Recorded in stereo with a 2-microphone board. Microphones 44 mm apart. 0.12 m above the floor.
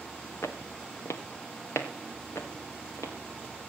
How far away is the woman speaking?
I don't hear a woman speaking.